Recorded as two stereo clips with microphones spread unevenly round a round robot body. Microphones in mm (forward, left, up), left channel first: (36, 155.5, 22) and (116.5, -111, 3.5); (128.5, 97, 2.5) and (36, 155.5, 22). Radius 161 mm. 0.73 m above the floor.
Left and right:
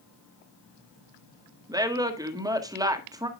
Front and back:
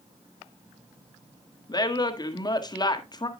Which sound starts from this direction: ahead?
A woman speaking, at 1.7 s.